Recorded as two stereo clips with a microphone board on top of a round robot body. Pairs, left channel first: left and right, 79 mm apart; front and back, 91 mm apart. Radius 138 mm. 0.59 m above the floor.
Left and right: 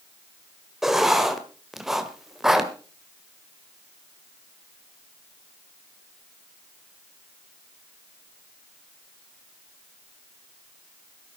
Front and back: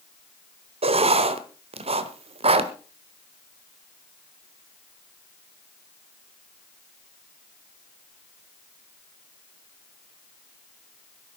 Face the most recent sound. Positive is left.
turn(degrees=-175)